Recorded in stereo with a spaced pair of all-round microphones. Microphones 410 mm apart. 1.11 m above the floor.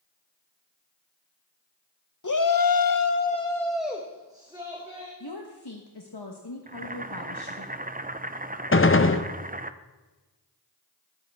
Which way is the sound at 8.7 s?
30° left (ahead or behind).